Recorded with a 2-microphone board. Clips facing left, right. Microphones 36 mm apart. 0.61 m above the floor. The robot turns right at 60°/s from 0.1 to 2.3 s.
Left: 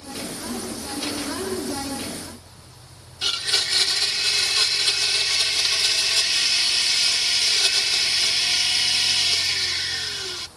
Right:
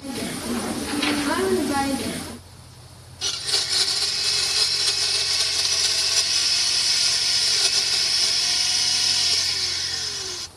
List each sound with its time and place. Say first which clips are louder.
3.2 s a blender: left 3 dB; 30° left (ahead or behind)